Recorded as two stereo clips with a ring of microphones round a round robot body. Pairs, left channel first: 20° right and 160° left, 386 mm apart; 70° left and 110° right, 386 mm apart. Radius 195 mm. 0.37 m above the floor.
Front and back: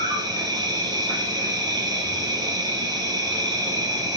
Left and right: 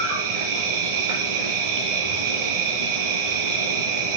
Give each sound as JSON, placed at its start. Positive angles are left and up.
{"t": 0.0, "sound": "an insect", "azimuth_deg": -120, "distance_m": 2.0}